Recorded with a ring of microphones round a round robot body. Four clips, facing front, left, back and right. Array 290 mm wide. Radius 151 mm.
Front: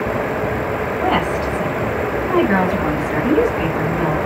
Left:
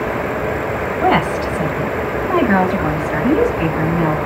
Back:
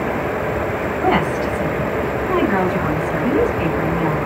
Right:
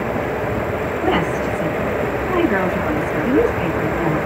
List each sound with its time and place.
1.0 s a woman speaking: 95° left, 5.5 m; by 4.2 s 80° left, 6.5 m